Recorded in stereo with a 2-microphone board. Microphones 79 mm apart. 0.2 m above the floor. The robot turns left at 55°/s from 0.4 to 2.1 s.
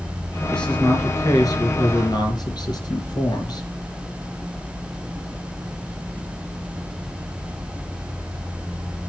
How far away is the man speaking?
About 3.5 m.